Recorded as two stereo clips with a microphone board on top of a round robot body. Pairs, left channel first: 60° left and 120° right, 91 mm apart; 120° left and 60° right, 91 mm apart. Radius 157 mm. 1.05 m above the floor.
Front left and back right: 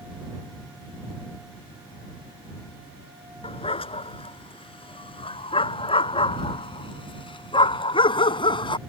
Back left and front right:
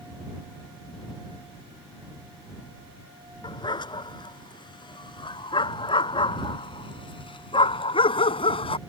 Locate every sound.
3.4 s a dog barking: 80° left; by 8.8 s 95° left